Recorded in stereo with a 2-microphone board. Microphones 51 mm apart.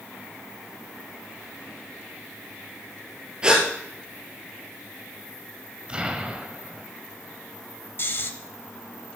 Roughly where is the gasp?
Centre.